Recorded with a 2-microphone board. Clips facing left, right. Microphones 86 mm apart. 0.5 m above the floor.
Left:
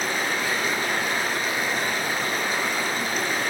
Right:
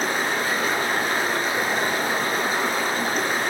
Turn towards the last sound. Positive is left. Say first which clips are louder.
# right 2 dB
turn(degrees=-35)  # may be behind; listen again after turning